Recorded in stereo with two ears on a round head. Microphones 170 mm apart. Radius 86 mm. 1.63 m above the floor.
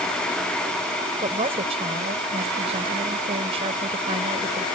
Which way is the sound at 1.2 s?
30° right (ahead or behind).